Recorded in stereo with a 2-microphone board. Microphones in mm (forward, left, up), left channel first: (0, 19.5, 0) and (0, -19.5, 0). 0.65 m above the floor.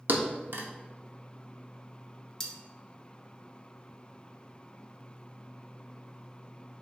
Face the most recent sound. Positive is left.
turn(degrees=15)  # may be behind; listen again after turning